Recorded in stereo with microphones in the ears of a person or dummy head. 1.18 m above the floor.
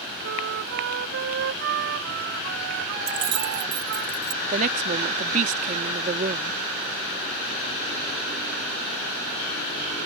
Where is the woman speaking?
40° right (ahead or behind).